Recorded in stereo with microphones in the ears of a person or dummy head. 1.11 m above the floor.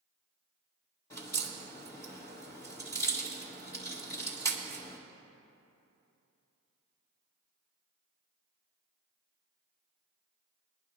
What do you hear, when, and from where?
1.1 s a crack: 15° left (ahead or behind), 1.7 m